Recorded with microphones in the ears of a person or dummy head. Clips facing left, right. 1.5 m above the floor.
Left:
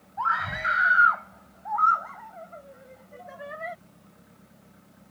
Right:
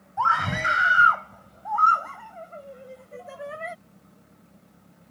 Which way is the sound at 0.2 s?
55° right (ahead or behind).